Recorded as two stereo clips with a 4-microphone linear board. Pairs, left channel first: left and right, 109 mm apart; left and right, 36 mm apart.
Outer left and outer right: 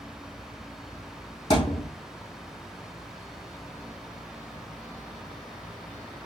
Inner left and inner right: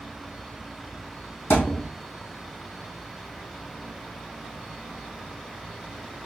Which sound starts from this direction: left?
A thud, at 1.5 s.